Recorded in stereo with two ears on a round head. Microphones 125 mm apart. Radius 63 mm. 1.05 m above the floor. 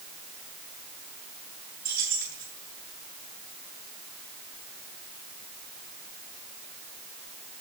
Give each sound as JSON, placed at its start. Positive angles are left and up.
{"t": 1.9, "sound": "keys jangling", "side_deg": -70, "distance_m": 9.0}